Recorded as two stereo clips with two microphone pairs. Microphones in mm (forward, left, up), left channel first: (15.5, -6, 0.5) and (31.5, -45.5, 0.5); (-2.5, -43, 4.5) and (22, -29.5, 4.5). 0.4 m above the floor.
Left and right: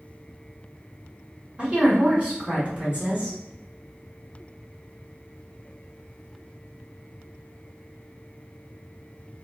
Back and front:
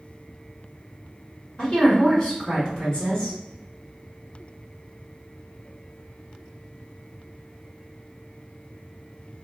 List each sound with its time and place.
1.6 s a woman speaking: 105° right, 1.7 m